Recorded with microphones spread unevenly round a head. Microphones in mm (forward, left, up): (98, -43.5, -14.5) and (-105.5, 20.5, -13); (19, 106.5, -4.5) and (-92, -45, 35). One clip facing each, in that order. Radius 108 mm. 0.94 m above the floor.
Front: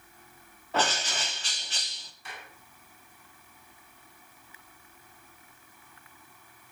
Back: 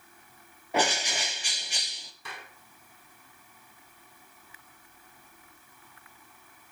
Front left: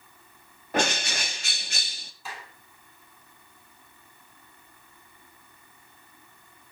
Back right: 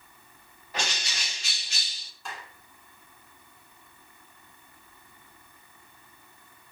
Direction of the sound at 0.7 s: 85° left.